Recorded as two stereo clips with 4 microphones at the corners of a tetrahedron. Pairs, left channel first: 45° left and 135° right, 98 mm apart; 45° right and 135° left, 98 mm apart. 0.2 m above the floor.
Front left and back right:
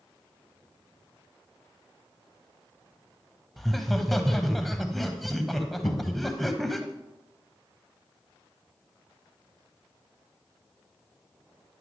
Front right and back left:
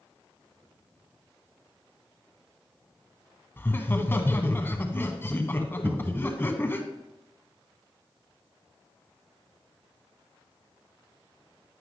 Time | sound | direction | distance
3.6 | laughter | 45° right | 1.1 m
5.8 | a cupboard door | 70° left | 0.9 m